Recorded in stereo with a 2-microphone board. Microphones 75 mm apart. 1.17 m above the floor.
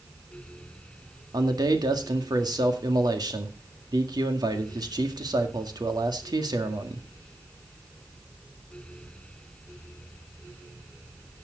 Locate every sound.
1.3 s a man speaking: 70° right (ahead or behind), 1.8 m